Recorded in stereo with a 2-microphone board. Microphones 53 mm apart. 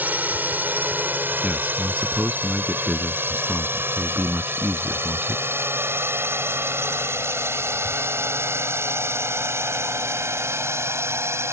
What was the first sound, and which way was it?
A drone, 35° right (ahead or behind).